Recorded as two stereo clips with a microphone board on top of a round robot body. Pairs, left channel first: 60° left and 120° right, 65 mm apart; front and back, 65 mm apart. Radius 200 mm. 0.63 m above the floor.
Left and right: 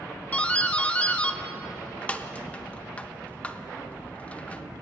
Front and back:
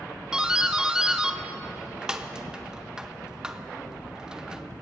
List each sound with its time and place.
0.3 s a doorbell: 110° left, 1.0 m